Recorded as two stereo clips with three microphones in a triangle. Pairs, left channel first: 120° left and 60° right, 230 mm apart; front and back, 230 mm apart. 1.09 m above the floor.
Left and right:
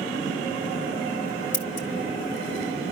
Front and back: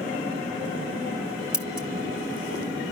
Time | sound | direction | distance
1.5 | scissors | 95° left | 1.2 m